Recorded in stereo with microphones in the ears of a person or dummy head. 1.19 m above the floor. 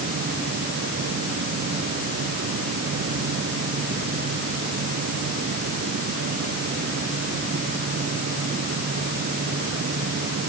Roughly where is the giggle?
No giggle in this recording.